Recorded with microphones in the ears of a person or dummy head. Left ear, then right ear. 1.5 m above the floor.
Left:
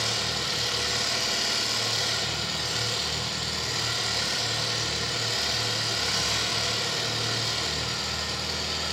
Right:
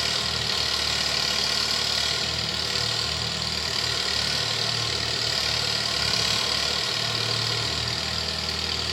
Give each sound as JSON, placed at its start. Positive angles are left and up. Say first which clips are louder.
{"t": 0.0, "sound": "an engine running", "louder": "right 2 dB", "side_deg": -25, "distance_m": 1.4}